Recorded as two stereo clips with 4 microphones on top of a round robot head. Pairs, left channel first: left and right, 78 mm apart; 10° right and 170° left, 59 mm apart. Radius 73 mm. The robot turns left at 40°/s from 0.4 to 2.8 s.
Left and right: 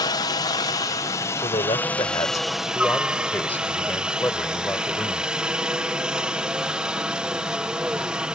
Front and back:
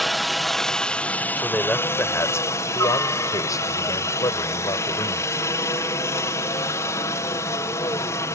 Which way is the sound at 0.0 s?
80° left.